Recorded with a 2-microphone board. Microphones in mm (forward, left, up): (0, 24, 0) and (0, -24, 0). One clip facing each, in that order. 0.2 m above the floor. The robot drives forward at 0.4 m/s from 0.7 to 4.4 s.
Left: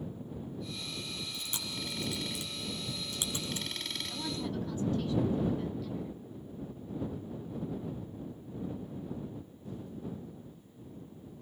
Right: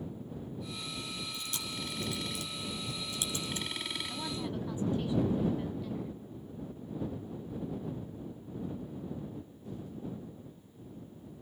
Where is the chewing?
20° left (ahead or behind), 3 m; by 3.7 s 25° left (ahead or behind), 2 m.